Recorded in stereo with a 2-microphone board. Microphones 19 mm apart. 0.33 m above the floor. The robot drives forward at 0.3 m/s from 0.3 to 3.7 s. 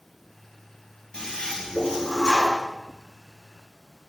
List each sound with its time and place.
1.1 s a toilet flushing: 70° left (ahead or behind), 3 m; by 2.6 s 60° left (ahead or behind), 3 m